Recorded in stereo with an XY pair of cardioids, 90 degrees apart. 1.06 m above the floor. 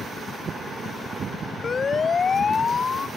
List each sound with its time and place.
1.6 s a siren: 45° left